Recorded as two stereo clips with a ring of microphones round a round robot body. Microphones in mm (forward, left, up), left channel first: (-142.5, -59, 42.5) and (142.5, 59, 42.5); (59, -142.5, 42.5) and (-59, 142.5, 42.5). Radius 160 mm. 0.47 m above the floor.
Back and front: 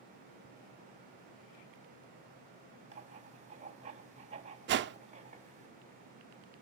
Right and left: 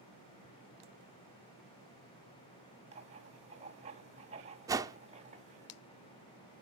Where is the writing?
65° left, 1.1 m.